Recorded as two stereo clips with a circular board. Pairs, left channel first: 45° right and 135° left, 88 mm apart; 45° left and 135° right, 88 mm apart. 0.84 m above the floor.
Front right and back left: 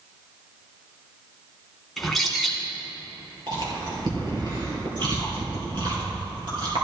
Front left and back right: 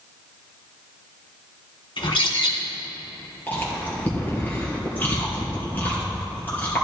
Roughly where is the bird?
Ahead left.